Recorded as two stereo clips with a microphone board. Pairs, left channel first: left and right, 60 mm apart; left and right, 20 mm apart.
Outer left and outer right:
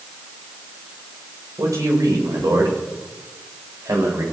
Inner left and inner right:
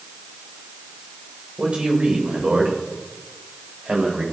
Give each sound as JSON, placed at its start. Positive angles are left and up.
{"t": 1.6, "sound": "a man speaking", "side_deg": -80, "distance_m": 8.5}